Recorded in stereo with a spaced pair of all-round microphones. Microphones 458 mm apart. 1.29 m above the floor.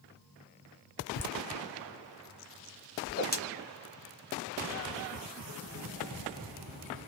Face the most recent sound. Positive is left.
turn(degrees=20)  # may be behind; listen again after turning